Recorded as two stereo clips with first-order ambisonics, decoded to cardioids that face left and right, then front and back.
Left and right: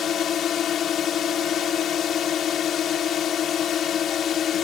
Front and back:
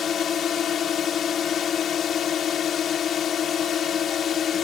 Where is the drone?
45° left.